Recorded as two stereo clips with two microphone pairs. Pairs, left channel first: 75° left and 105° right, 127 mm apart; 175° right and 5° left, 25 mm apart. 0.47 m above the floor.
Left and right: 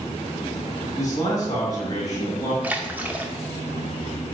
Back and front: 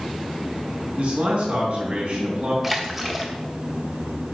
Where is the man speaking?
10° left, 3.5 m.